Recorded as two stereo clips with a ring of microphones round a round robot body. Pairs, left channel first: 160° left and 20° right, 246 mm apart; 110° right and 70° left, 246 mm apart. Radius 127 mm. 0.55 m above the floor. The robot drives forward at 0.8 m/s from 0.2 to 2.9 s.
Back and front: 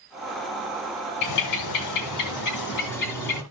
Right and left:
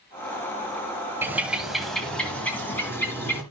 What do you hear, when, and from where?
1.2 s a bird: 150° left, 1.2 m; by 3.4 s 165° left, 2.5 m